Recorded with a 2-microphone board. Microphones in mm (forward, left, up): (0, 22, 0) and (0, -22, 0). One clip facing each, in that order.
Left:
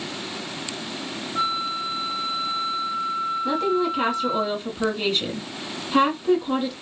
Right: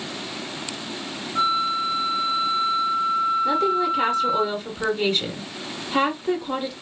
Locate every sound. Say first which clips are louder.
1.4 s a flute: right 4 dB; 5° right (ahead or behind), 3.5 m
3.5 s a woman speaking: right 2 dB; centre (ahead or behind), 1.5 m